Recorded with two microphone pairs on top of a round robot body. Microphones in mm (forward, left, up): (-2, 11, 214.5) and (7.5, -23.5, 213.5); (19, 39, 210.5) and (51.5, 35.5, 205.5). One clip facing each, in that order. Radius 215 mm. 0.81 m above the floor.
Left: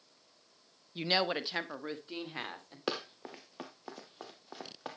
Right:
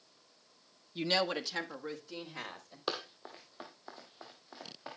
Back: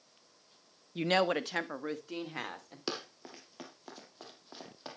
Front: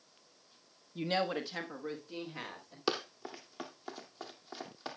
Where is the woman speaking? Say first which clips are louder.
Left 1 dB, back 4 dB; 170° right, 1.0 m; by 2.8 s 155° left, 3.5 m.